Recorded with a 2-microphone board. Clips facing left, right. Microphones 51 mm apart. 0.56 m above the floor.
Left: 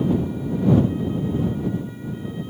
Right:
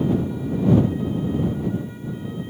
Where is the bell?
I don't hear a bell.